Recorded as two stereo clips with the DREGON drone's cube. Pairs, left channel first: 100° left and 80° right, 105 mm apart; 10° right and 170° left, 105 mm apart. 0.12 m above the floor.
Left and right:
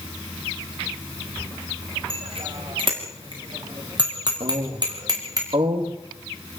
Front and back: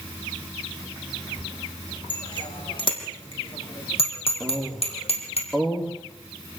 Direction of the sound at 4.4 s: 100° right.